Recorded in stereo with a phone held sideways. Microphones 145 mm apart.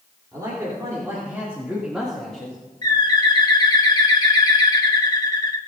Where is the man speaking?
25° right (ahead or behind), 3.5 m; by 2.6 s 10° left (ahead or behind), 2 m.